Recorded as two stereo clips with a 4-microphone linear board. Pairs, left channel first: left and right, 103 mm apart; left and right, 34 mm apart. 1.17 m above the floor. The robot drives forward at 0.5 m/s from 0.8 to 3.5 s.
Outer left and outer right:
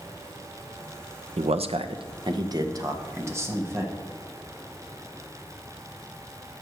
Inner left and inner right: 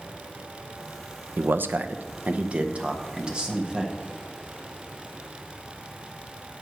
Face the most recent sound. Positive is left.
turn(degrees=-25)  # may be behind; listen again after turning